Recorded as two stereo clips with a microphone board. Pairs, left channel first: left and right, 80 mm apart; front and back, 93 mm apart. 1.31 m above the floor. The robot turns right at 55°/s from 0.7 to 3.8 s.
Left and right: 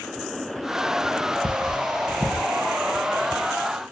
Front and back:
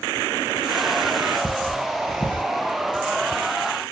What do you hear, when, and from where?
1.4 s cutlery clinking: 85° right, 1.0 m; by 2.4 s 30° right, 1.0 m